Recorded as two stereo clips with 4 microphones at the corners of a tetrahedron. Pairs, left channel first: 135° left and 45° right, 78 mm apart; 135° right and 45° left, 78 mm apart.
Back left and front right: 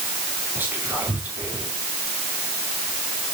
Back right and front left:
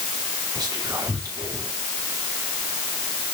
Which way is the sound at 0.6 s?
20° left.